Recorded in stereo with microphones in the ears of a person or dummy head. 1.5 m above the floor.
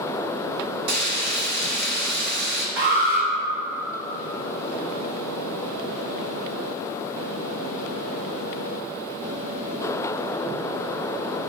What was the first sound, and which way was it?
Frying, 55° right (ahead or behind).